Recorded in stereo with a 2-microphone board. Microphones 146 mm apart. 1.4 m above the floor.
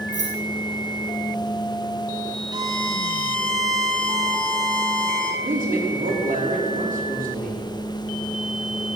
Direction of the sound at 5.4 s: 65° right (ahead or behind).